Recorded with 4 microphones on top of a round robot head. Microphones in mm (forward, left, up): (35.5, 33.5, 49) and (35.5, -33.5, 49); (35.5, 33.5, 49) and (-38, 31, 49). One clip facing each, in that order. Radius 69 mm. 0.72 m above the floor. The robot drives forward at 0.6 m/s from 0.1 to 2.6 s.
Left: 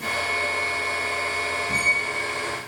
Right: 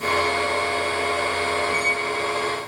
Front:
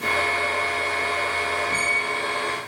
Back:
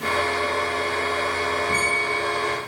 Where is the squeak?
140° left, 3 m; by 2.6 s 145° left, 3.5 m.